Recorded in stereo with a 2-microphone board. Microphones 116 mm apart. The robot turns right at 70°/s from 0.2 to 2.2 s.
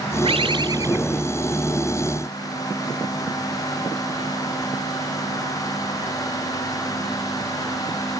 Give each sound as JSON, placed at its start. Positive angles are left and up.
{"t": 0.2, "sound": "a bird", "azimuth_deg": -80, "distance_m": 0.8}